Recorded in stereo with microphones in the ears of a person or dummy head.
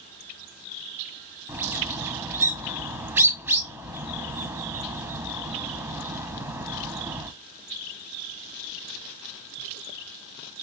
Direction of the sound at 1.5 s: 15° right (ahead or behind).